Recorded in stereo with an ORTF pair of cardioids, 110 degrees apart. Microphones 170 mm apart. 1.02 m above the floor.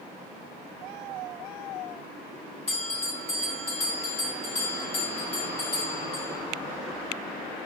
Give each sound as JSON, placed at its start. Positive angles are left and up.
{"t": 2.7, "sound": "a bell", "azimuth_deg": 35, "distance_m": 1.4}